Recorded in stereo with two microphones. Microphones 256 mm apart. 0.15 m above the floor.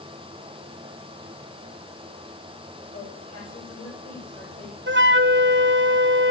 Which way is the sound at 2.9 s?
65° left (ahead or behind).